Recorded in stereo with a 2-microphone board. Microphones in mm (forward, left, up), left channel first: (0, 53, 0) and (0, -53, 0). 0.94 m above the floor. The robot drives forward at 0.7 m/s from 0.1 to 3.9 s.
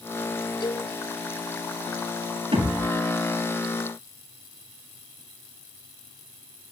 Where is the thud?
55° right (ahead or behind), 7.5 m; by 2.9 s 60° right (ahead or behind), 7.5 m.